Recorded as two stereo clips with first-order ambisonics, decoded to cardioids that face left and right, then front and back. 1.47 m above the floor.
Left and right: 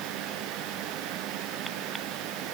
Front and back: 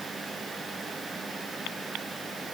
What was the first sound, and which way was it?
Only background noise.